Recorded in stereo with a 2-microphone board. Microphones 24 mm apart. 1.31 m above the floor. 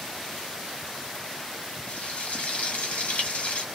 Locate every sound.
1.9 s frying: 60° left (ahead or behind), 0.9 m